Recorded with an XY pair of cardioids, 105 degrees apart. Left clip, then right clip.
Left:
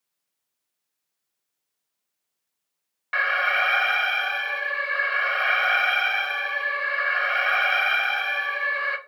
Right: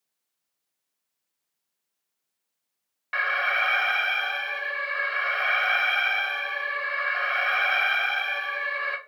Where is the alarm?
10° left, 0.8 m.